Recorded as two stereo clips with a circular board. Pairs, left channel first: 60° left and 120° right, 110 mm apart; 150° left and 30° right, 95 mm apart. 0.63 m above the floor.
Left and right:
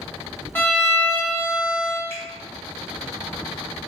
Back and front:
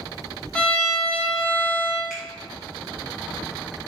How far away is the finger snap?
About 1.6 m.